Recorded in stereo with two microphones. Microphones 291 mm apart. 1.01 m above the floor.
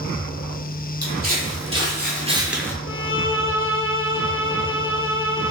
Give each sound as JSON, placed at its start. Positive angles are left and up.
{"t": 1.0, "sound": "footsteps", "side_deg": -60, "distance_m": 2.0}
{"t": 2.9, "sound": "a violin", "side_deg": 45, "distance_m": 0.6}